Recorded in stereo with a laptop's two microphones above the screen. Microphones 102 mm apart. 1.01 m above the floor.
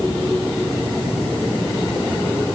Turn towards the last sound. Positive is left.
No sound to turn to.